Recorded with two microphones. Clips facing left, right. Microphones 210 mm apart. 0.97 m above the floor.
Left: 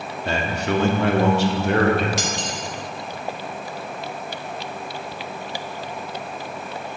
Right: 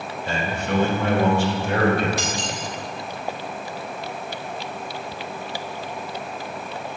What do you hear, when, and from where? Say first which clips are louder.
0.2 s a man speaking: left 3 dB; 65° left (ahead or behind), 1.9 m; by 2.1 s 60° left (ahead or behind), 2.5 m
2.2 s cutlery clinking: even; 75° left (ahead or behind), 2.5 m